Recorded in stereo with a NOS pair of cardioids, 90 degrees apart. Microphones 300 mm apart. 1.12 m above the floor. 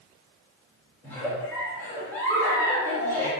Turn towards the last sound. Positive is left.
turn(degrees=5)